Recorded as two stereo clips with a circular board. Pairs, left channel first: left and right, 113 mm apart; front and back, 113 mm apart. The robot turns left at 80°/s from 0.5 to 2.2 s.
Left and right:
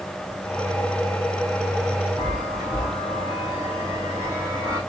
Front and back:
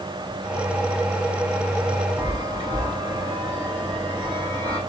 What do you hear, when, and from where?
2.2 s a chime: 45° left, 3.5 m